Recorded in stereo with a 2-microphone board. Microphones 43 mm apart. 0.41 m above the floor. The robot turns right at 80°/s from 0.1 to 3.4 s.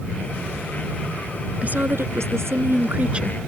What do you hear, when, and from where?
1.6 s a woman speaking: 150° right; by 3.4 s 5° right